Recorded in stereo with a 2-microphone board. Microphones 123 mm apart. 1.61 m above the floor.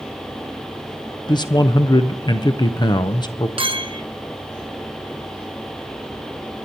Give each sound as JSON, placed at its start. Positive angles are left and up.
{"t": 1.3, "sound": "a man speaking", "side_deg": 35, "distance_m": 0.5}
{"t": 3.6, "sound": "a clink", "side_deg": -45, "distance_m": 0.9}